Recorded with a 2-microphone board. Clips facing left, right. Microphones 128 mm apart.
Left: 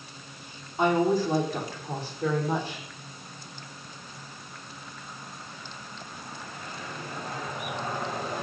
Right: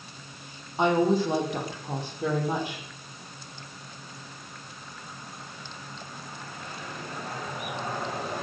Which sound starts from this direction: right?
A woman speaking, at 0.8 s.